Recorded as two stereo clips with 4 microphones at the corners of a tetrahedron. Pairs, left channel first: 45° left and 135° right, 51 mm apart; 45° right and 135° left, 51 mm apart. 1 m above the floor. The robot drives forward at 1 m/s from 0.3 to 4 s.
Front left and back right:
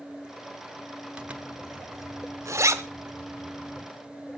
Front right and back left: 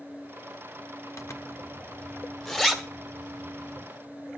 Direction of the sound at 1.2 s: 65° right.